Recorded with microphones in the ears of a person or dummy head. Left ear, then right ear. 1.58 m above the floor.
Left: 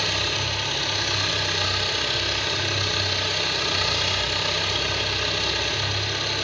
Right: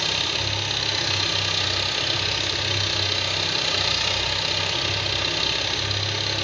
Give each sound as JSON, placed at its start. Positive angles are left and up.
{"t": 0.0, "sound": "an engine running", "side_deg": -35, "distance_m": 2.0}